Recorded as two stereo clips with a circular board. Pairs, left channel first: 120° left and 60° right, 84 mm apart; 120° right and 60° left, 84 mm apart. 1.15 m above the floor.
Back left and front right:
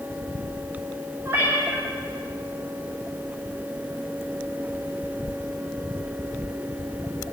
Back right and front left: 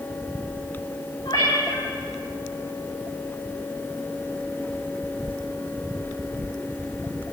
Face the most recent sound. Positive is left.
turn(degrees=-125)